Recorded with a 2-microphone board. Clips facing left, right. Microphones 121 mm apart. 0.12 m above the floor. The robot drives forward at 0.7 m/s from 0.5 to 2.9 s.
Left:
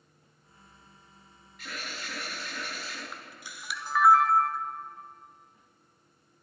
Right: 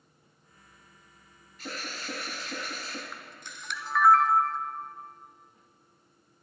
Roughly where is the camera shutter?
Centre.